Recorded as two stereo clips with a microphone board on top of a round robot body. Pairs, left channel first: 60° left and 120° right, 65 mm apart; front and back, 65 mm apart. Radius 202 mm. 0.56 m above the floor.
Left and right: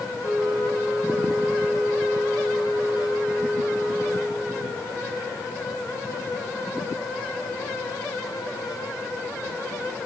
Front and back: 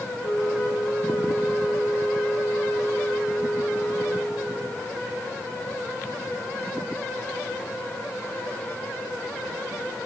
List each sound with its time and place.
0.2 s a flute: 25° right, 5 m